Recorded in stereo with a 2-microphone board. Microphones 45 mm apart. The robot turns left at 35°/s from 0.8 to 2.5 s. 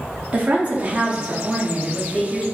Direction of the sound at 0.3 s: 145° right.